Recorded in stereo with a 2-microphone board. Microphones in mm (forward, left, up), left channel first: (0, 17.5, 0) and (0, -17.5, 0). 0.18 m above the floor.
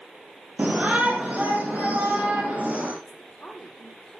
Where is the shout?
45° right (ahead or behind), 4 m.